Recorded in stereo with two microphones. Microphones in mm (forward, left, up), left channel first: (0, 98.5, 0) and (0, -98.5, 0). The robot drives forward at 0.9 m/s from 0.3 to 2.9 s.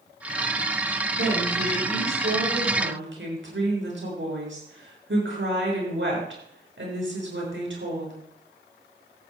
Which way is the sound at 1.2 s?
65° right (ahead or behind).